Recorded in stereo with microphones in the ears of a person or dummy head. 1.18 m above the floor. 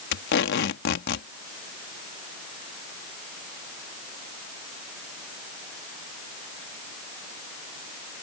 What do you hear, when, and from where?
0.1 s tape being pulled: 60° left (ahead or behind)